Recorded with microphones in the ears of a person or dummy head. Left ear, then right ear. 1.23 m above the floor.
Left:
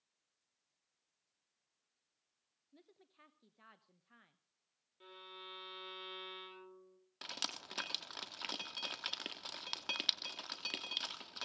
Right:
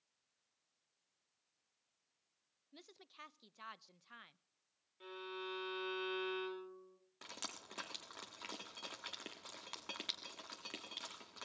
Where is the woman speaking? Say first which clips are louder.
Right 8 dB; 45° right (ahead or behind), 0.8 m.